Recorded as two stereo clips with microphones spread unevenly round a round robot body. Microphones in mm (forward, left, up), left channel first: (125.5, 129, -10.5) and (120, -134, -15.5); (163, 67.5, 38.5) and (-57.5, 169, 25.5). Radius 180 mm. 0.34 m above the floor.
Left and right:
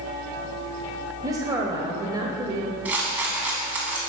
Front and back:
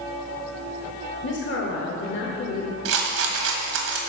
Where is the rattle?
175° right, 1.1 m.